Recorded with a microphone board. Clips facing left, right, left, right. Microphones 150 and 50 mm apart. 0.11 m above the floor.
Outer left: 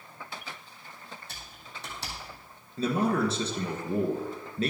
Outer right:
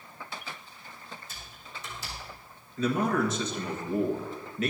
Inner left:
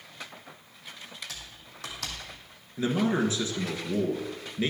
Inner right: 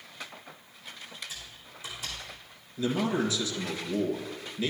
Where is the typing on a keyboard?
70° left (ahead or behind), 2 m.